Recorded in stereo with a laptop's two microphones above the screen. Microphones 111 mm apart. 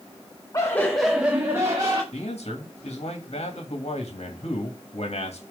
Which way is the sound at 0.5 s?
30° left (ahead or behind).